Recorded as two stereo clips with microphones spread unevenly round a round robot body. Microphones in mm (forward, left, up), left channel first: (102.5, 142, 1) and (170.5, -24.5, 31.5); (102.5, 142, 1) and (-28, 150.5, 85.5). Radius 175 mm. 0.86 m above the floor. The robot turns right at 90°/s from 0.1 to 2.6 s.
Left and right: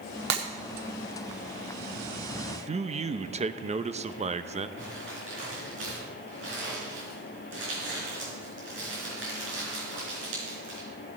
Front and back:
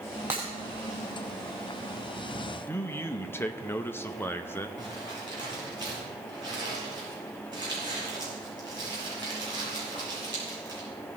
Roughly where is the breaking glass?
Right.